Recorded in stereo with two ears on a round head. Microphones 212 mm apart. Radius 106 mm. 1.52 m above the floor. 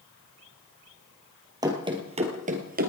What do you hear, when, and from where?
1.6 s running footsteps: 15° right (ahead or behind), 2.5 m; by 2.9 s 40° right (ahead or behind), 2.5 m